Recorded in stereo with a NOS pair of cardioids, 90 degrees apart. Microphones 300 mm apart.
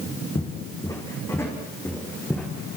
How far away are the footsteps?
About 7.5 m.